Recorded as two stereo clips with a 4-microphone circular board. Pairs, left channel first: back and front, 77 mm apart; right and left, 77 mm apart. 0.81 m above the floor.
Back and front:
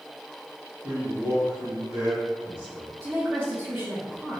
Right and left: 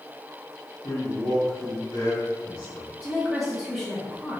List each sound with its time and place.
0.8 s a man speaking: 50° right, 1.8 m
3.0 s a woman speaking: 5° left, 0.7 m